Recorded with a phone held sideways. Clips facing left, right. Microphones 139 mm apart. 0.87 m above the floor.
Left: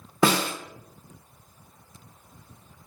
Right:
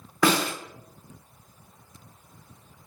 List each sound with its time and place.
0.2 s a snare drum: 25° left (ahead or behind), 0.7 m